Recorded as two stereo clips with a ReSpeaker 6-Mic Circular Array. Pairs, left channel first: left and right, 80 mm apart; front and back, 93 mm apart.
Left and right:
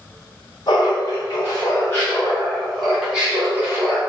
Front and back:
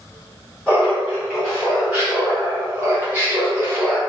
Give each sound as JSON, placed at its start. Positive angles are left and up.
{"t": 0.7, "sound": "laughter", "azimuth_deg": 95, "distance_m": 1.4}